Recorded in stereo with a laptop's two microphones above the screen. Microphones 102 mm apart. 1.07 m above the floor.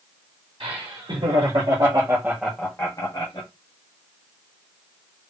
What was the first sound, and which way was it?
Laughter, 70° right (ahead or behind).